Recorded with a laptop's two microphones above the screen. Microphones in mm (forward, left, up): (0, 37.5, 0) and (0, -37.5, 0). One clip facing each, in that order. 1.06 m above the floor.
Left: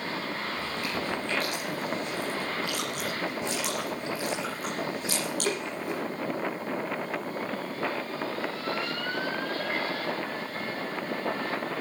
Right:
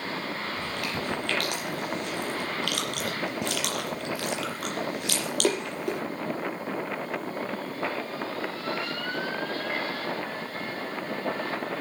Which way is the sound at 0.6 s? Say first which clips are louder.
Even; 75° right (ahead or behind).